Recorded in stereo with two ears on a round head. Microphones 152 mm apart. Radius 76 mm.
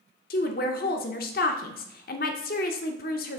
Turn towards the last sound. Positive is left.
turn(degrees=55)  # may be behind; listen again after turning